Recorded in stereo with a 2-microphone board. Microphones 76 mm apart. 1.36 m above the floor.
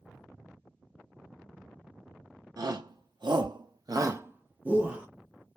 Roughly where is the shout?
Right.